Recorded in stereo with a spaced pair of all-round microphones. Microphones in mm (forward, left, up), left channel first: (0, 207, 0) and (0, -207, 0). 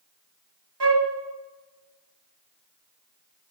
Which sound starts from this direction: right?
A flute, at 0.8 s.